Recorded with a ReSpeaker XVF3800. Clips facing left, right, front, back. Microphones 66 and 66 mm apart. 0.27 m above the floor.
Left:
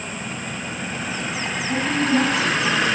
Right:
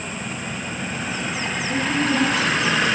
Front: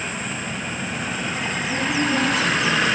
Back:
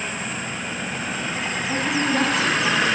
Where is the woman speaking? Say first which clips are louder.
Left 1 dB, even; 155° left, 1.5 m.